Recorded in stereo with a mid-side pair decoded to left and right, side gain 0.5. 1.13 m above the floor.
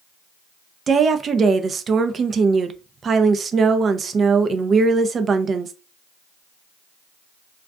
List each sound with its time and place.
0.9 s a woman speaking: 40° right, 0.5 m